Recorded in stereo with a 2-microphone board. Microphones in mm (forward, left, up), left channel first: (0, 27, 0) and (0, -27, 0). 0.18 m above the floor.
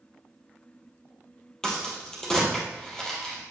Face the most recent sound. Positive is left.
turn(degrees=10)  # may be behind; listen again after turning